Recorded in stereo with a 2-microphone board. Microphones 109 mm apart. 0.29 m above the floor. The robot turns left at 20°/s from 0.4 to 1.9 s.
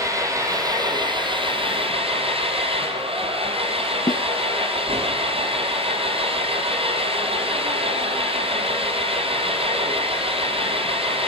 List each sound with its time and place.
0.0 s an engine running: 30° right, 5 m; by 11.3 s 60° right, 5 m
4.1 s a snare drum: 50° left (ahead or behind), 1.1 m